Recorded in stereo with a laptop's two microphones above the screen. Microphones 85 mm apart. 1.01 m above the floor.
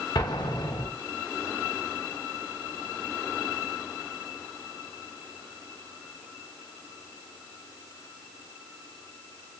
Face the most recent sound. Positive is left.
turn(degrees=55)  # may be behind; listen again after turning